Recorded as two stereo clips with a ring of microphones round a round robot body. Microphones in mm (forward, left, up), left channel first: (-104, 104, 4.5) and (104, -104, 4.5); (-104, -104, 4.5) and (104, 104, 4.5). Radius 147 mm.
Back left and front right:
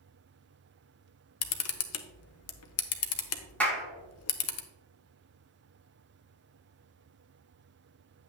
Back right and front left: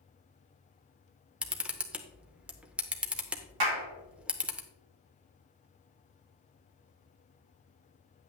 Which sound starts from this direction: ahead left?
A clap, at 3.6 s.